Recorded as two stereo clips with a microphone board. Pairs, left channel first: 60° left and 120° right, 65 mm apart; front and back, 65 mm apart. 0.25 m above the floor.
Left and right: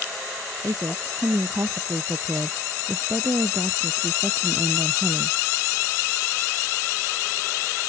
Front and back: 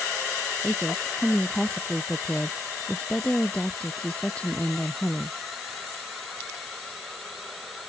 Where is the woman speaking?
85° right; by 5.4 s 70° right.